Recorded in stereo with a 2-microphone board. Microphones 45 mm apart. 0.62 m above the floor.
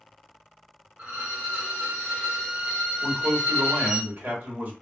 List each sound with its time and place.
1.0 s a violin: 30° right (ahead or behind), 1.5 m
3.0 s a man speaking: 45° right (ahead or behind), 1.4 m